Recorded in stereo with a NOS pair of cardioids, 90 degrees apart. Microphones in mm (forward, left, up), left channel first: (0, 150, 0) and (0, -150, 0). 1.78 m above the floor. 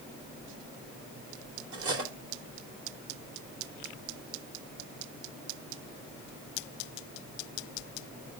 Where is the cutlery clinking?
50° right, 3.5 m.